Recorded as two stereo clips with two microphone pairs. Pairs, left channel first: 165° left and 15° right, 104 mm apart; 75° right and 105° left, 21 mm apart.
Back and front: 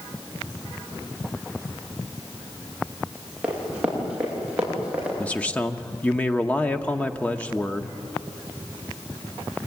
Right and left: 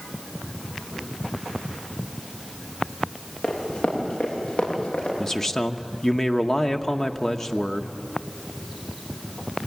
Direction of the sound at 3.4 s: 95° right.